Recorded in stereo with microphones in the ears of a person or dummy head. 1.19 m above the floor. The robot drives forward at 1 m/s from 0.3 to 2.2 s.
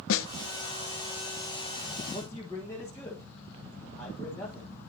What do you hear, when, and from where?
0.1 s a snare drum: 65° left (ahead or behind), 0.6 m
2.1 s a man speaking: 10° left (ahead or behind), 1.2 m